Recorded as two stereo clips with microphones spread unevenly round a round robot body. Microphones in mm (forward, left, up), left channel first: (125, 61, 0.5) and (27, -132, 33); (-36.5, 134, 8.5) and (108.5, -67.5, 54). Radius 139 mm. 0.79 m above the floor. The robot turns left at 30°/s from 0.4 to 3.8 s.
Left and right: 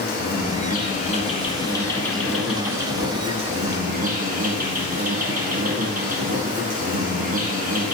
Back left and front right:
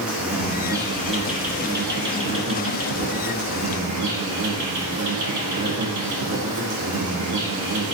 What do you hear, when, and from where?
0.0 s an insect: 35° left, 2.5 m; by 7.9 s 65° right, 2.5 m